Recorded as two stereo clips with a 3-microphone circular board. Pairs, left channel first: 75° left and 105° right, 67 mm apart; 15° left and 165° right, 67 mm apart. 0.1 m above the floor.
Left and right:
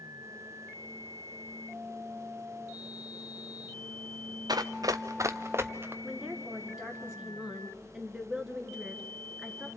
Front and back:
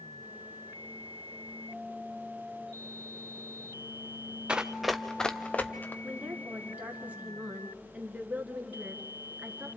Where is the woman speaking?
170° right, 1.5 m.